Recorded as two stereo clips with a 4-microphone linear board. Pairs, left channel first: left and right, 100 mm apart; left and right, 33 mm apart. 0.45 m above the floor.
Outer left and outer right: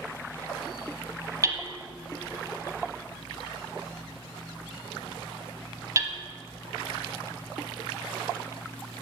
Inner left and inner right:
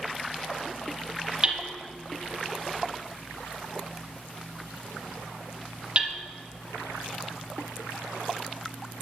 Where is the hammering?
35° right (ahead or behind), 0.8 m.